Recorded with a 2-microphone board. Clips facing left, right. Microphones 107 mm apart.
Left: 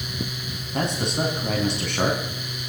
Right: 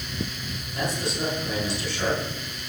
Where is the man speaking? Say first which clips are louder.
Left 3 dB; 75° left (ahead or behind), 4.5 m.